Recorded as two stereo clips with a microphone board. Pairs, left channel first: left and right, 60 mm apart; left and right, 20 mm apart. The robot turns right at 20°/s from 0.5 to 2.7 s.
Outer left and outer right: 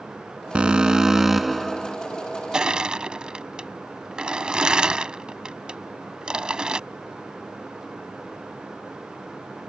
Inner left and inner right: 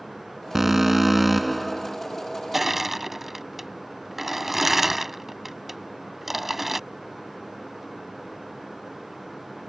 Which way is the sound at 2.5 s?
15° right (ahead or behind).